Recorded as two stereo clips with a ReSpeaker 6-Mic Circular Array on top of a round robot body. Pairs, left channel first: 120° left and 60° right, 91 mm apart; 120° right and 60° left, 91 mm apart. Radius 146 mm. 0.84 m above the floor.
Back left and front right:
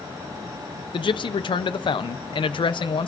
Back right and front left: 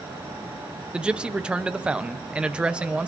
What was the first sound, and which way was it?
A man speaking, 140° left.